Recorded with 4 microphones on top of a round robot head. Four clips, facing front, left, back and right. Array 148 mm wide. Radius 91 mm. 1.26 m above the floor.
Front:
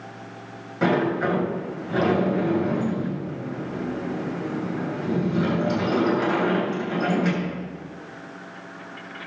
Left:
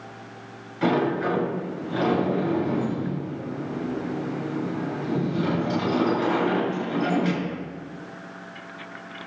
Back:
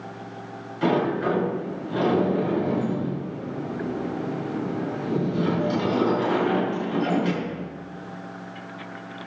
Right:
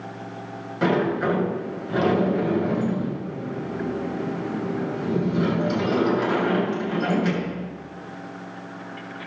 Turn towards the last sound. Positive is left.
turn(degrees=-45)